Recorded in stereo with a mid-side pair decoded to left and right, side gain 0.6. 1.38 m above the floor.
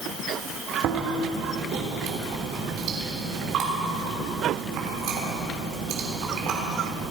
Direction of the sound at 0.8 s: 60° right.